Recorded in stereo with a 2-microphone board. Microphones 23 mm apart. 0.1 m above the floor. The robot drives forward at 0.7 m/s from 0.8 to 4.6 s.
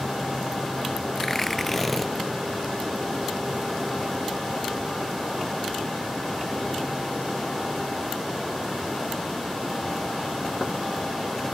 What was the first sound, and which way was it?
Tearing paper, 20° left (ahead or behind).